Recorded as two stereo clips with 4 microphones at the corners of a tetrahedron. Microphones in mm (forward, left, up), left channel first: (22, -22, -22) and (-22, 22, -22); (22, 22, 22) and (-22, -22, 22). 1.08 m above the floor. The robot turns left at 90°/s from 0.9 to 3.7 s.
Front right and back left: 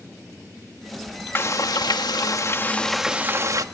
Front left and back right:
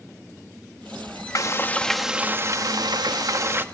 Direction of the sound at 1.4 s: 10° left.